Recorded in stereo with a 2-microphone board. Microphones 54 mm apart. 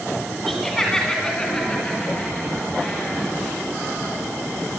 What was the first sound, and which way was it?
Laughter, 5° left (ahead or behind).